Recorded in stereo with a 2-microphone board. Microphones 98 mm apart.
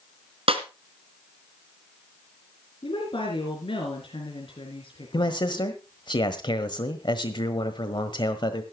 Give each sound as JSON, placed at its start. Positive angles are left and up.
{"t": 0.5, "sound": "a snare drum", "side_deg": -75, "distance_m": 1.9}
{"t": 2.8, "sound": "a woman speaking", "side_deg": 65, "distance_m": 4.0}
{"t": 5.1, "sound": "a man speaking", "side_deg": 50, "distance_m": 1.3}